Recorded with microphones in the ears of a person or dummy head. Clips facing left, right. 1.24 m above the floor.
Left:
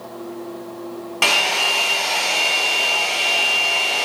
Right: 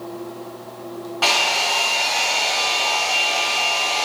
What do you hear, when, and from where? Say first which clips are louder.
1.2 s a hair dryer: even; 40° left (ahead or behind), 1.6 m